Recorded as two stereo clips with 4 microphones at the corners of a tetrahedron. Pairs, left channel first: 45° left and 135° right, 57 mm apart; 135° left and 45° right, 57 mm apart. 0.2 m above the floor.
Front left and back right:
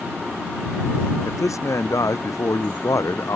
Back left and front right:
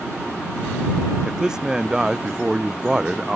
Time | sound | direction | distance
1.2 | a man speaking | 30° left | ?